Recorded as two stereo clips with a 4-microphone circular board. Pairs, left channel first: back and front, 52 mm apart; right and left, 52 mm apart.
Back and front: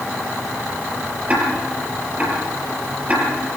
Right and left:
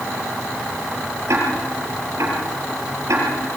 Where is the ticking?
65° left, 6.5 m.